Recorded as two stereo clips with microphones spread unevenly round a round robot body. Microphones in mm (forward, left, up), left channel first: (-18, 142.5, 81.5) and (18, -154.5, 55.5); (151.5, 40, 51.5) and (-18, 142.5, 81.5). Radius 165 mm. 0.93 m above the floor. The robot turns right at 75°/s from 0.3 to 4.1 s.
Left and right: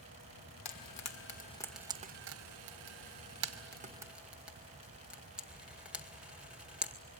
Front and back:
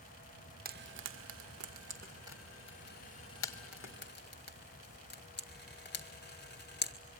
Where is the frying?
105° left, 1.9 m; by 6.9 s 5° left, 1.9 m.